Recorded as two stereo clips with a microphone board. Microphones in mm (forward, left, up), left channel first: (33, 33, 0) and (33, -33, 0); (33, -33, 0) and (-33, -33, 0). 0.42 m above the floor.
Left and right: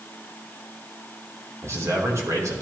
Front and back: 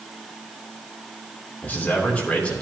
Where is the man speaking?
60° right, 2.5 m; by 2.6 s 70° right, 3 m.